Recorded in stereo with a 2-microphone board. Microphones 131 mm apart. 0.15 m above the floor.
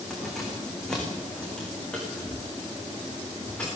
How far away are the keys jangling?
About 7 m.